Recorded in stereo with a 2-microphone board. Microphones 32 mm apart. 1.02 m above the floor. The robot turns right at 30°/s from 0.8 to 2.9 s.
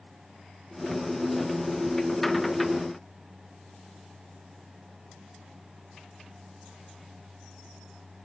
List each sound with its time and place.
Only background noise.